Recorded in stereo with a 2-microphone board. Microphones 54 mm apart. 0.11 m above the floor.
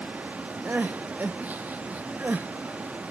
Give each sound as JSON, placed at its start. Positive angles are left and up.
{"t": 0.7, "sound": "crying", "side_deg": -30, "distance_m": 0.8}